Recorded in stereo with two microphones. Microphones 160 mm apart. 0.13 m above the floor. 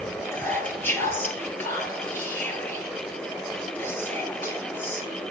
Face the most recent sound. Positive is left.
turn(degrees=15)  # may be behind; listen again after turning